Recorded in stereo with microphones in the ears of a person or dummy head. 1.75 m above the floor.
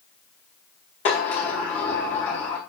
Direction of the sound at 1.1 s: 35° left (ahead or behind).